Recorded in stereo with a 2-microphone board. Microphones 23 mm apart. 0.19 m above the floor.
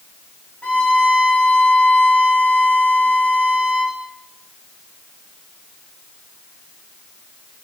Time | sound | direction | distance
0.6 | a violin | 60° left (ahead or behind) | 3 m